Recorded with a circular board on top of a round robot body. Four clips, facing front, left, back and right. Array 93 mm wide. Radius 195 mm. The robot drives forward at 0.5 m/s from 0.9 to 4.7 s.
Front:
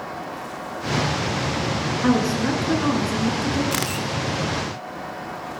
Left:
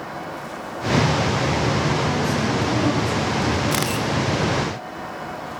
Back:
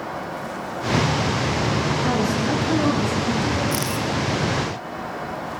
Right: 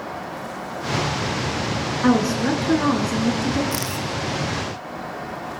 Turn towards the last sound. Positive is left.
turn(degrees=70)